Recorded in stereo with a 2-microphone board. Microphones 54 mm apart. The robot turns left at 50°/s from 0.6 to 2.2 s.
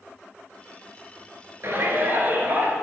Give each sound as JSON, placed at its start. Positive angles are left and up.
{"t": 1.6, "sound": "a shout", "side_deg": -45, "distance_m": 1.7}